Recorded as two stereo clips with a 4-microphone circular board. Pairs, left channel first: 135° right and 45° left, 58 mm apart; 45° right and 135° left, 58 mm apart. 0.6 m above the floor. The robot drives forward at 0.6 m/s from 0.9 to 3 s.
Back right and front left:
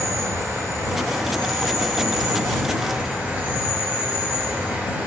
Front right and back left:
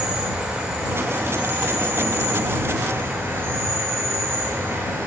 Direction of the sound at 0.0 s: 70° left.